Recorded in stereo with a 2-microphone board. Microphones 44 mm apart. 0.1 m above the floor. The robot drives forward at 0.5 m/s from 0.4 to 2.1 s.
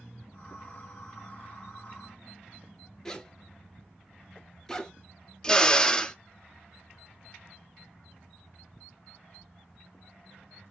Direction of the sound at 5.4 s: 15° left (ahead or behind).